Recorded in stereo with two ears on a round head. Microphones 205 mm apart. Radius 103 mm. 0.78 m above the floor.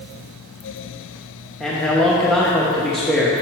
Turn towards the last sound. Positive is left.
turn(degrees=0)  # may be behind; listen again after turning